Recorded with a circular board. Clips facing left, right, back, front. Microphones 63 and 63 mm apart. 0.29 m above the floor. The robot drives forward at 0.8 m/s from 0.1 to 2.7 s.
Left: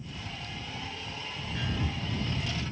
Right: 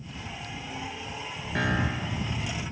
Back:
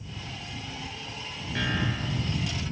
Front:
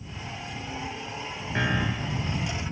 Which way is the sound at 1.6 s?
60° right.